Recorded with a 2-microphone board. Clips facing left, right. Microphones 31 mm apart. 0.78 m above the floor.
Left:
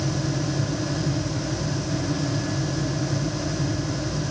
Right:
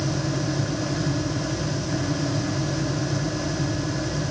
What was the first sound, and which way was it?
Only background noise.